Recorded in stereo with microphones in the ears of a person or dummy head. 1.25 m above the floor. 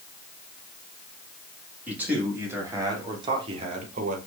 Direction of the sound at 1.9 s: 10° right (ahead or behind).